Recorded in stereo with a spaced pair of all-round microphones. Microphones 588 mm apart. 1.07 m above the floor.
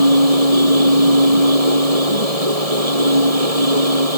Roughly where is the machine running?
Right.